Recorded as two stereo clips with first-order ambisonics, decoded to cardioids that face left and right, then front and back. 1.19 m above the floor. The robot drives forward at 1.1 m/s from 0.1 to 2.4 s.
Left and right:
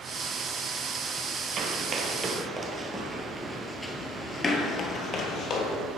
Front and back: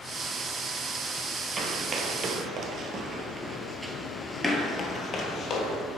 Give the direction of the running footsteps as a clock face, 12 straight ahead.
4 o'clock.